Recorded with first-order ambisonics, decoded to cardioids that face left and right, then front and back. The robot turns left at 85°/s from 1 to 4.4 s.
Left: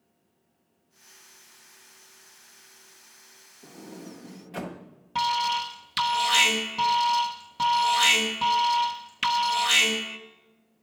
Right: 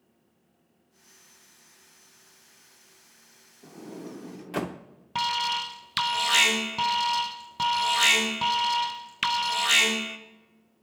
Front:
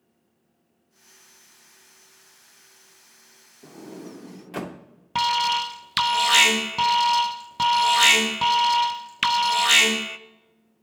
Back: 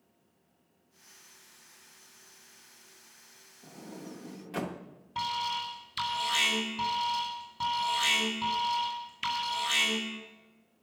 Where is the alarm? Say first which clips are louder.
Left 2 dB, front 10 dB; 10° right, 0.8 m.